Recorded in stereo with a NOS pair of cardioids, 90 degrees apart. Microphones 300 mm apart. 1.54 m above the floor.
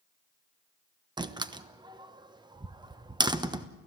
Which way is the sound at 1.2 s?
15° right.